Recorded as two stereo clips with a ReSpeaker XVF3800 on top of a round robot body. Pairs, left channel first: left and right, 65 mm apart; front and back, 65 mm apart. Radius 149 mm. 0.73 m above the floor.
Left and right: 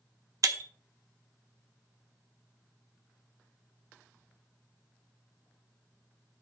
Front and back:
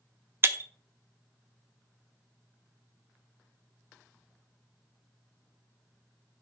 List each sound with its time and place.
0.4 s breaking glass: 125° right, 1.0 m